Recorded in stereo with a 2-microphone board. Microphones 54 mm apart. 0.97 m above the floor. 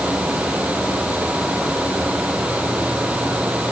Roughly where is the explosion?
No explosion in this recording.